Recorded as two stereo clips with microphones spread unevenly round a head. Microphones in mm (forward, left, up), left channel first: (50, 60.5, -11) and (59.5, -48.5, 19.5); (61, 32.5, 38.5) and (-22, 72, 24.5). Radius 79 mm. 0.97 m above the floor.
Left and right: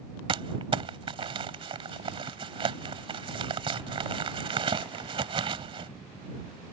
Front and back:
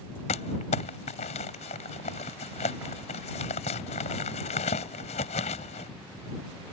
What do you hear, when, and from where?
0.3 s crumpling: 50° right